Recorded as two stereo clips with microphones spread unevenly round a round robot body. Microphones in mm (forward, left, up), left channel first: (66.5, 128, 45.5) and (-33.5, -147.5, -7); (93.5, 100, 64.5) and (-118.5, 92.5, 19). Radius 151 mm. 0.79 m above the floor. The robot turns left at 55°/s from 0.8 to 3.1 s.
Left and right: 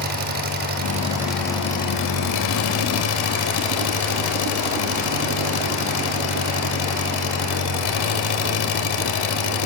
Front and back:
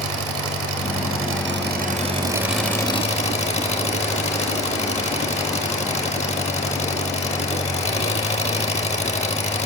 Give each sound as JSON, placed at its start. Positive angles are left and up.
{"t": 0.0, "sound": "an engine running", "azimuth_deg": -170, "distance_m": 3.0}